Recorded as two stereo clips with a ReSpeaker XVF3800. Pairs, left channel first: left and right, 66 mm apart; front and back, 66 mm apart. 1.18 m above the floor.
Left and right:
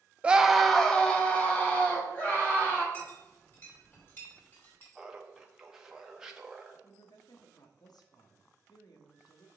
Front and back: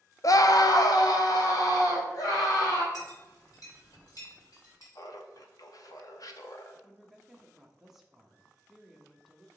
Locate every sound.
0.2 s a scream: 20° right, 0.5 m; by 2.8 s 25° left, 2.5 m
2.9 s a clink: 35° left, 3.5 m
5.0 s laughter: 10° right, 0.9 m
6.8 s a woman speaking: 95° left, 1.0 m